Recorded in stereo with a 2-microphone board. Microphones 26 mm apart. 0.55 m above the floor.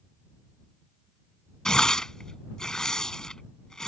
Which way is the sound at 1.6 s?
20° left (ahead or behind).